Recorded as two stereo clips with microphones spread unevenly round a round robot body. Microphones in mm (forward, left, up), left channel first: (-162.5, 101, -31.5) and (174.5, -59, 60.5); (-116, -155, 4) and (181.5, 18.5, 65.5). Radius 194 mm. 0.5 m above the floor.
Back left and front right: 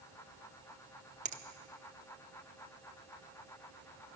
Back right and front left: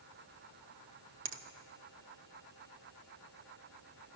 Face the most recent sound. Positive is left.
turn(degrees=55)